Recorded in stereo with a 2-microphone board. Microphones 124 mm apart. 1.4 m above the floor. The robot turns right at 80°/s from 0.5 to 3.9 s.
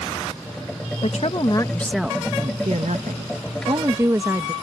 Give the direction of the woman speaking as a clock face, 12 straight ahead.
8 o'clock.